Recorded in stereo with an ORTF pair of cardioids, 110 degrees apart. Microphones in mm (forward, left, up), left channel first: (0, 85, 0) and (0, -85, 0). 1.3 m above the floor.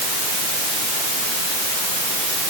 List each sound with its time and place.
Only background noise.